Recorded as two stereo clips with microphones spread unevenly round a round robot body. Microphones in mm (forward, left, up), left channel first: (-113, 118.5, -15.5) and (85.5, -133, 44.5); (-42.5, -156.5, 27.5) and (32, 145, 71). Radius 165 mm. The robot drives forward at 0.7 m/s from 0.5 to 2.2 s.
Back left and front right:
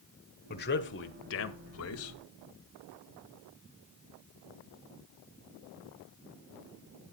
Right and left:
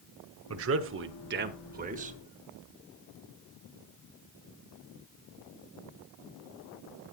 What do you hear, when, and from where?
0.5 s a man speaking: 105° left, 1.4 m; by 2.2 s 145° left, 2.0 m